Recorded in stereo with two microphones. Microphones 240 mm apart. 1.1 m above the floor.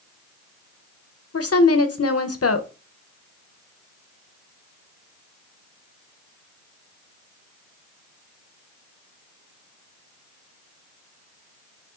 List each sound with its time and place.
1.3 s a woman speaking: 75° left (ahead or behind), 0.5 m